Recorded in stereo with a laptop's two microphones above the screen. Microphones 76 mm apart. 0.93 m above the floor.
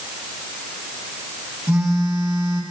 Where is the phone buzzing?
30° right (ahead or behind), 9.5 m.